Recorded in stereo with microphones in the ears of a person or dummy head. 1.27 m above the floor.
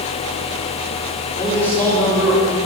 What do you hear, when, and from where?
1.4 s a man speaking: 10° left (ahead or behind), 4 m; by 2.5 s centre (ahead or behind), 3.5 m